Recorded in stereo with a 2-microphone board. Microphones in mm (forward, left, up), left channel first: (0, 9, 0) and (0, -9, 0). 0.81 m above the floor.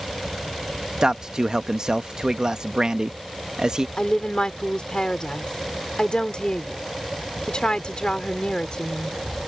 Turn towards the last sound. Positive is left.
turn(degrees=60)  # may be behind; listen again after turning